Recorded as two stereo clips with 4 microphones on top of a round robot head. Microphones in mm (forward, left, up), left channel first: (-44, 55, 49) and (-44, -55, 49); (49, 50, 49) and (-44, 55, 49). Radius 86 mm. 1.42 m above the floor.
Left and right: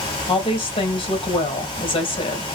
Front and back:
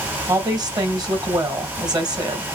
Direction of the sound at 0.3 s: 130° left.